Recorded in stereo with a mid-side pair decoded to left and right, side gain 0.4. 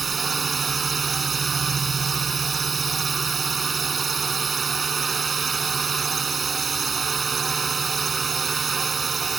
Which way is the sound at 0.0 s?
40° right.